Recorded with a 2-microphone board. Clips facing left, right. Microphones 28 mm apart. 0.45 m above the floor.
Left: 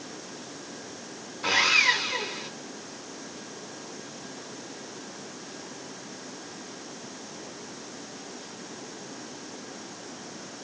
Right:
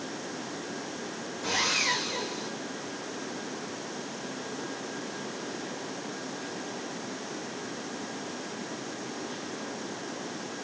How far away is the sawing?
About 3 m.